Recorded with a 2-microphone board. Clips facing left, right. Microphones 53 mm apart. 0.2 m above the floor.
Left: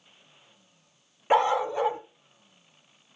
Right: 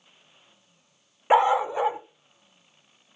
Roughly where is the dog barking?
Centre.